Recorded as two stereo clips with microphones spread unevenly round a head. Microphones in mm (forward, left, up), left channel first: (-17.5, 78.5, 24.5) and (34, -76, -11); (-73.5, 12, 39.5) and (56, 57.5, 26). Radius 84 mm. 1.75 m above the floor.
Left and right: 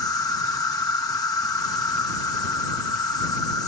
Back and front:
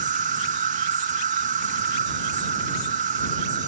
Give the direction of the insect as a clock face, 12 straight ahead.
11 o'clock.